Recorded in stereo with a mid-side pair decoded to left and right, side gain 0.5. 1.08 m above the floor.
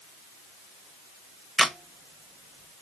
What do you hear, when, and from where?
1.6 s a camera shutter: 30° right, 0.7 m